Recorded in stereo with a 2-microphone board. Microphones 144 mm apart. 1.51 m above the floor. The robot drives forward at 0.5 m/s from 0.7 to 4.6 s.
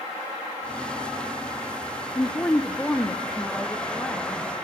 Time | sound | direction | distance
2.1 | a woman speaking | 20° left (ahead or behind) | 0.8 m